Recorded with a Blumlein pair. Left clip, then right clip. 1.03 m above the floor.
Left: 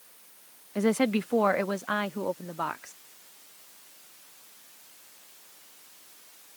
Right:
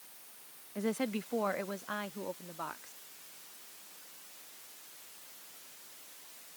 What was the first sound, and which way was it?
A woman speaking, 65° left.